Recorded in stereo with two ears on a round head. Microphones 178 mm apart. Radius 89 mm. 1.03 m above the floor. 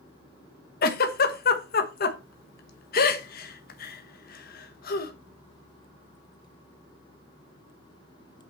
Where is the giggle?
55° left (ahead or behind), 1.3 m.